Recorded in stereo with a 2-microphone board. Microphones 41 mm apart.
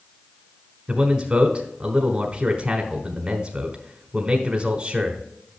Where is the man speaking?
25° right (ahead or behind), 1.2 m.